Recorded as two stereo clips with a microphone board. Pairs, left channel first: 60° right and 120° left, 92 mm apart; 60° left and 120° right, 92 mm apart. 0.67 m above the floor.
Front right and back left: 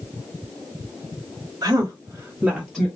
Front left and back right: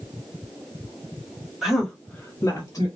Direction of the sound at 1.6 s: 155° left.